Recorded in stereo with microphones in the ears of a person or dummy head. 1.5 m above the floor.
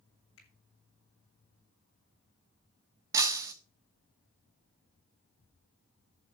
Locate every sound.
0.4 s a finger snap: 65° left (ahead or behind), 7.5 m
3.1 s breaking glass: 15° right (ahead or behind), 1.5 m